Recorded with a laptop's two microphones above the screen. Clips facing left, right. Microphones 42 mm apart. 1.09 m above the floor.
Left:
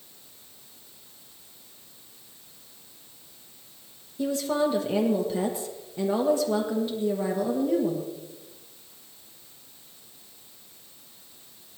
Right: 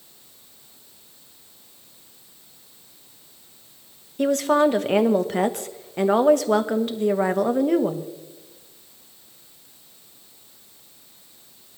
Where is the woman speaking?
70° right (ahead or behind), 1.1 m.